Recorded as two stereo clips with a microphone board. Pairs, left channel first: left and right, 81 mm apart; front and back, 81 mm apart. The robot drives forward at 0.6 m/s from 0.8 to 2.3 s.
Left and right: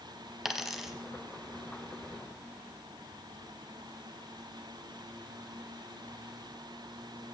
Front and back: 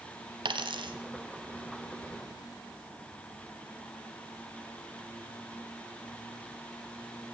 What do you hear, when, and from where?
0.5 s a dropped coin: 175° right, 0.7 m